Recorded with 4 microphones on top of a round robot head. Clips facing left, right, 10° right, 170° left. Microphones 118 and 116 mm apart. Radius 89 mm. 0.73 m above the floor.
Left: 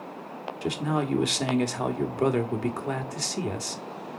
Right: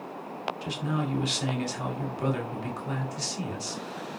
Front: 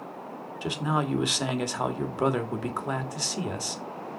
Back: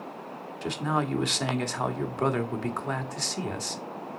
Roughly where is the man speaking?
Left.